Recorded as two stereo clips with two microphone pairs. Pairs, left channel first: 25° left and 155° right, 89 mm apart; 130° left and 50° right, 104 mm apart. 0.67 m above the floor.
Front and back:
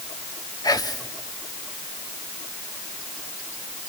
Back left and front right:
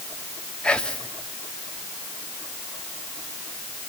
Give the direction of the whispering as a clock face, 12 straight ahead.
10 o'clock.